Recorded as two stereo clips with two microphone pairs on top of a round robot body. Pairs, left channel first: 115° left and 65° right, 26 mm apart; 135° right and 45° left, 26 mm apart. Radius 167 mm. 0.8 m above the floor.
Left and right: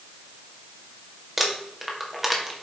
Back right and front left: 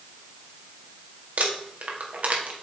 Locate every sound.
1.4 s crumpling: 20° left, 2.0 m